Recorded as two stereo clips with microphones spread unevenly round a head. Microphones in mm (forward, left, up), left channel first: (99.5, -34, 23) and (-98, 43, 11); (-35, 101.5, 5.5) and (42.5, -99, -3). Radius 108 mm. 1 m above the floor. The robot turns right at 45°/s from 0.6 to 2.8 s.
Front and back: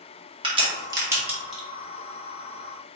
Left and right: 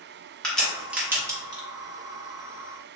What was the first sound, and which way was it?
A crack, 160° right.